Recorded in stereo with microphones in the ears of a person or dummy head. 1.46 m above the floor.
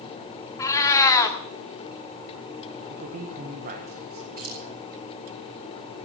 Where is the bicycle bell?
No bicycle bell in this recording.